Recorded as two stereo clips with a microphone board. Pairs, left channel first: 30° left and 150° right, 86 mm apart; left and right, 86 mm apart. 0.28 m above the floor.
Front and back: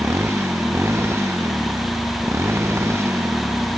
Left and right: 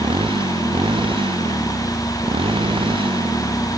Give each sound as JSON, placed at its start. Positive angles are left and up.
{"t": 0.0, "sound": "a motorcycle", "azimuth_deg": -90}